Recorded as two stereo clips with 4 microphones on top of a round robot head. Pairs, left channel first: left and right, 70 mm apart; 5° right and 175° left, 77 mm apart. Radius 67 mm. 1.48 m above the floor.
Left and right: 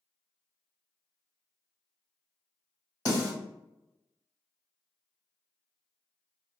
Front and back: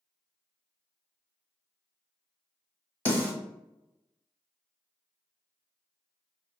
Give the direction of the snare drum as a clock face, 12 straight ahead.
10 o'clock.